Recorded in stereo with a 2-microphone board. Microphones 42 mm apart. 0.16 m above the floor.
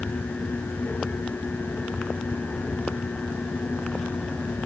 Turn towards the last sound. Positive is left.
No sound to turn to.